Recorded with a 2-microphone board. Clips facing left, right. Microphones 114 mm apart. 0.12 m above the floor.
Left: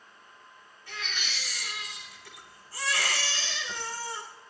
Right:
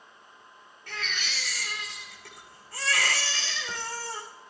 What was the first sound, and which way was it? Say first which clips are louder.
A baby crying: right 2 dB; 60° right (ahead or behind).